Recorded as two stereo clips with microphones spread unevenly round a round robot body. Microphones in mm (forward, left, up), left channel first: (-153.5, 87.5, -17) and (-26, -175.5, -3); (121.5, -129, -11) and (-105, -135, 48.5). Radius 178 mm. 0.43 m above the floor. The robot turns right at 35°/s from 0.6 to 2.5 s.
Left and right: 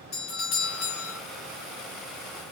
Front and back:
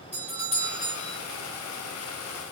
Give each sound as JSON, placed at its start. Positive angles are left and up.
{"t": 0.1, "sound": "a doorbell", "azimuth_deg": 90, "distance_m": 2.5}